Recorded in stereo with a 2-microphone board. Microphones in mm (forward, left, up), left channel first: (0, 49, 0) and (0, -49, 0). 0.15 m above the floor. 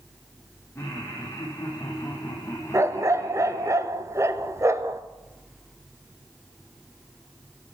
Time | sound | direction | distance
0.8 | laughter | 25° left (ahead or behind) | 6 m
2.7 | a dog barking | 30° right (ahead or behind) | 0.8 m